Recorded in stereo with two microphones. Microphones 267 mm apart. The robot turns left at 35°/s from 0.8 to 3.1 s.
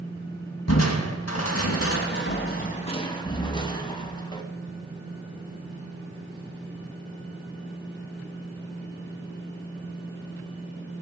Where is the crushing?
70° left (ahead or behind), 2.5 m; by 4.4 s 15° left (ahead or behind), 2.5 m.